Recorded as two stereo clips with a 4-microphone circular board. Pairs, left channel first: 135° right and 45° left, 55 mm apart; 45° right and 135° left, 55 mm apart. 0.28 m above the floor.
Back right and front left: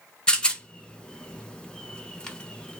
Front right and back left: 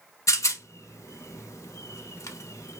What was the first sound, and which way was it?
A rattle, 65° right.